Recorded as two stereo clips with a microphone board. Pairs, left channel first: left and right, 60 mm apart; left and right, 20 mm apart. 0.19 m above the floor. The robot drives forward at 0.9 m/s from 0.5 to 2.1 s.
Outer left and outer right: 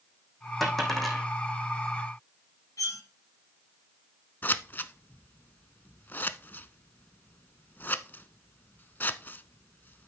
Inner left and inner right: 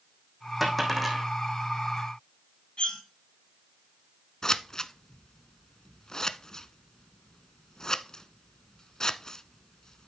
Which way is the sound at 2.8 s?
65° left (ahead or behind).